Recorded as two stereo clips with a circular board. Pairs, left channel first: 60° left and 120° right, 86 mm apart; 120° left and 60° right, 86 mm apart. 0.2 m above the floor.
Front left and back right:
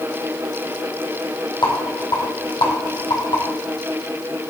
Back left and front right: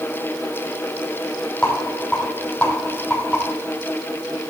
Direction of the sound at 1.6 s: 40° left.